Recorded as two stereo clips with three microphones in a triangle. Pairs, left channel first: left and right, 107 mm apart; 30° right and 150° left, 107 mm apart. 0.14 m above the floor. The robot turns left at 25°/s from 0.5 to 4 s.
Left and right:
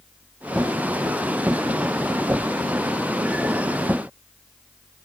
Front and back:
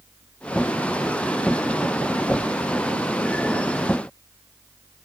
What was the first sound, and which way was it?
Only background noise.